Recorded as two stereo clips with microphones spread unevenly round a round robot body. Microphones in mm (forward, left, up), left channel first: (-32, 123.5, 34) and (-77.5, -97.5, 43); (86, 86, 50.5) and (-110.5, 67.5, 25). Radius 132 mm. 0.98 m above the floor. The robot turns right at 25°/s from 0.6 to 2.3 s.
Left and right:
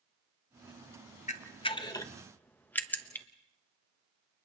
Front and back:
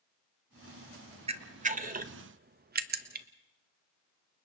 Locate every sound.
1.3 s a camera shutter: 135° left, 1.1 m; by 3.2 s 160° left, 1.1 m